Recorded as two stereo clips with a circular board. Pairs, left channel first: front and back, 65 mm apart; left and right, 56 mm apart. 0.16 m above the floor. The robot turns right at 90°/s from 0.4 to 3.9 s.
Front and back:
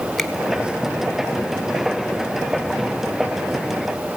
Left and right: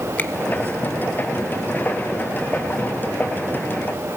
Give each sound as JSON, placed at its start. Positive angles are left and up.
{"t": 0.2, "sound": "a finger snap", "azimuth_deg": 85, "distance_m": 1.0}